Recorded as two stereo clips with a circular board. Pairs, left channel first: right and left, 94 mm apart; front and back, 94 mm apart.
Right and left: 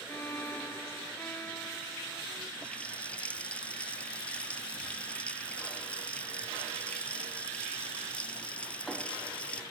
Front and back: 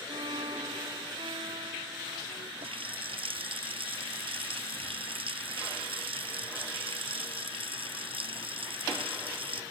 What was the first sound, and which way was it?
A violin, 160° right.